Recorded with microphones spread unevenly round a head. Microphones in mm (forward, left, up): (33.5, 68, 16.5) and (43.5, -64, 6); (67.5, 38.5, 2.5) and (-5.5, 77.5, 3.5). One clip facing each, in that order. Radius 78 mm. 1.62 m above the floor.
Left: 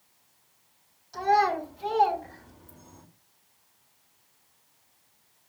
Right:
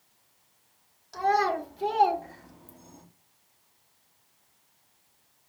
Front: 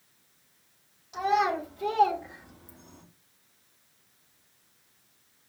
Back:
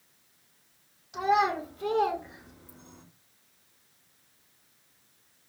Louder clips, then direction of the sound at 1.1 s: Left 2 dB, even; 60° right.